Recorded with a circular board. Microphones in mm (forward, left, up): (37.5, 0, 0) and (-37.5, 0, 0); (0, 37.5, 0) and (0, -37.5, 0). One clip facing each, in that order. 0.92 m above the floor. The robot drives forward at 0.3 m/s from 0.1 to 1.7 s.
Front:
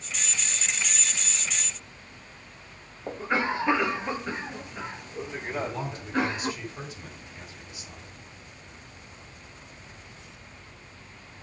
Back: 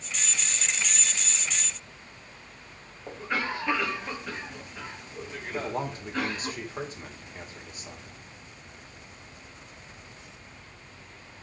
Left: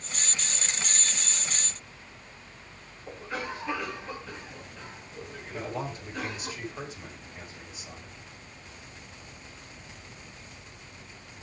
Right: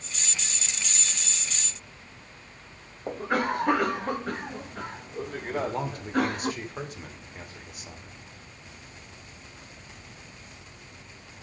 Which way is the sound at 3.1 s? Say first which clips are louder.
Front 4 dB, right 9 dB; 65° right.